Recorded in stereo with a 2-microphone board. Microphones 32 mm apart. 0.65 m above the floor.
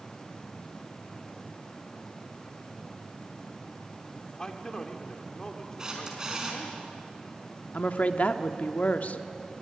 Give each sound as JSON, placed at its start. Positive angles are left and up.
{"t": 4.4, "sound": "a man speaking", "side_deg": 20, "distance_m": 1.8}
{"t": 5.8, "sound": "a camera shutter", "side_deg": -20, "distance_m": 4.5}
{"t": 7.7, "sound": "a woman speaking", "side_deg": 55, "distance_m": 1.1}